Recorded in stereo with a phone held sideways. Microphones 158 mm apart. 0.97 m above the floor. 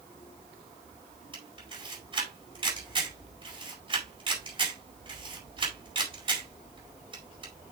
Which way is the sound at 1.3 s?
35° right (ahead or behind).